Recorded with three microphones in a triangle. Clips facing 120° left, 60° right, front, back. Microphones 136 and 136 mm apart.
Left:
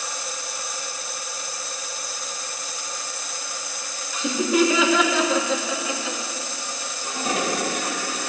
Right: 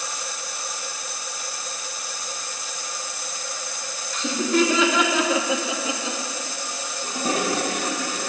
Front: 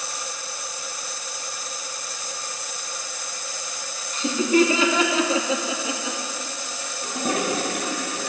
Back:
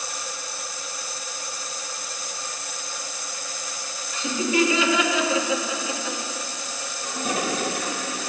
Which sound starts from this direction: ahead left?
Laughter, at 4.1 s.